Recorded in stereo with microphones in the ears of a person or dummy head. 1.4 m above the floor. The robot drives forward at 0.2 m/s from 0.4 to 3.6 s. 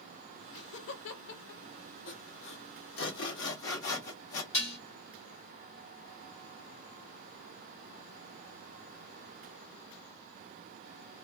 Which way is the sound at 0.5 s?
60° left (ahead or behind).